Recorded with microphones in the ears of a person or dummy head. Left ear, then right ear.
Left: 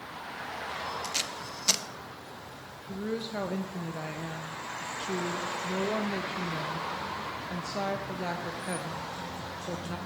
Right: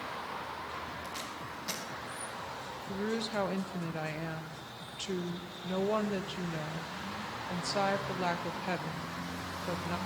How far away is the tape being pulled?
About 1.2 m.